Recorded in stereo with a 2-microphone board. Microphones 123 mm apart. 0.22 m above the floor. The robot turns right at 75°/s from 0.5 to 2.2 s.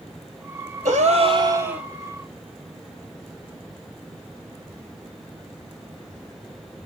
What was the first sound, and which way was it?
A gasp, 80° right.